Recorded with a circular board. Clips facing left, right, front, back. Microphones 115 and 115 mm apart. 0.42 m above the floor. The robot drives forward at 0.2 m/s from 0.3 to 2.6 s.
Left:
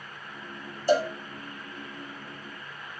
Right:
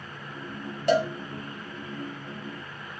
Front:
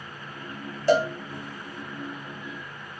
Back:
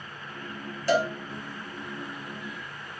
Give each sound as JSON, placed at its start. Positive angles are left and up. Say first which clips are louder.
{"t": 0.9, "sound": "a cowbell", "louder": "right 1 dB, front 3 dB", "azimuth_deg": -65, "distance_m": 2.5}